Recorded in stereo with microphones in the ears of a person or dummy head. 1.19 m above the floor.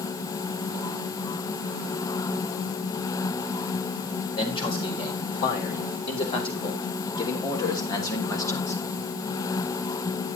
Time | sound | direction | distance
4.3 | a man speaking | 30° left (ahead or behind) | 4.5 m